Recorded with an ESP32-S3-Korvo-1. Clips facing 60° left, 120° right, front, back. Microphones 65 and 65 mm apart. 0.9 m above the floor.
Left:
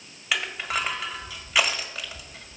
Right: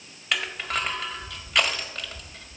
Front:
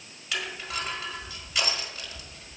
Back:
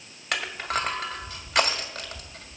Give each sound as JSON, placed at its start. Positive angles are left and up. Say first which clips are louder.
{"t": 0.3, "sound": "crushing", "louder": "left 1 dB, back 5 dB", "azimuth_deg": 145, "distance_m": 1.6}